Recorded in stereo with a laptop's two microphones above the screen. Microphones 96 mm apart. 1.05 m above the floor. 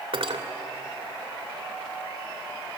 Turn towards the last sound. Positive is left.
turn(degrees=-65)  # may be behind; listen again after turning